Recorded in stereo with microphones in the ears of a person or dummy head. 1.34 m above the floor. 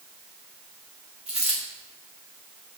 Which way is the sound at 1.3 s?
Centre (ahead or behind).